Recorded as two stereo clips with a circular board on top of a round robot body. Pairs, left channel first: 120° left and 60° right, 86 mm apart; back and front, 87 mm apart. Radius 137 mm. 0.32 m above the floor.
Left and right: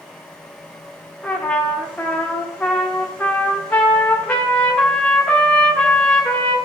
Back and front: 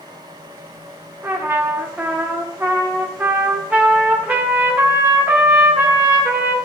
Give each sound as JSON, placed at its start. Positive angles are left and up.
{"t": 1.2, "sound": "a trumpet", "azimuth_deg": 55, "distance_m": 1.5}